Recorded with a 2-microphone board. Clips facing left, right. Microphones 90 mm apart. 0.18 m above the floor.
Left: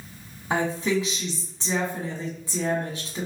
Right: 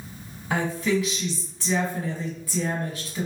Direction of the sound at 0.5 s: 25° left (ahead or behind).